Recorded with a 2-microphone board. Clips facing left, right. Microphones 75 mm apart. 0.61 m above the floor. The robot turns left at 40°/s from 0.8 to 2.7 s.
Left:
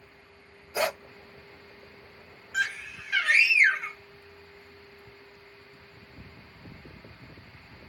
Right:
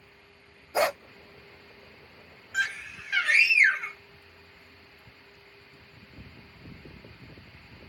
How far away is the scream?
About 1.9 m.